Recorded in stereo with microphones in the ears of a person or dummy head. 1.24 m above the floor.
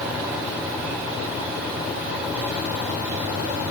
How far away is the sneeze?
I don't hear a sneeze.